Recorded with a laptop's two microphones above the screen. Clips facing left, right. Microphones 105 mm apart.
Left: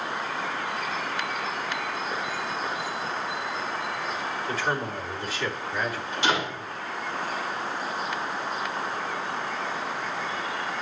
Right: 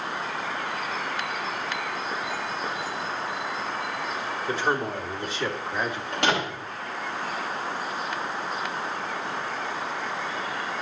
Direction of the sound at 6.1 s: 65° right (ahead or behind).